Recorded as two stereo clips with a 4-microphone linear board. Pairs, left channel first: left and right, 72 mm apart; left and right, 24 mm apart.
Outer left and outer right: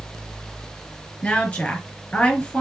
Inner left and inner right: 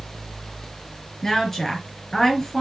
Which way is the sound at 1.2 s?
15° left (ahead or behind).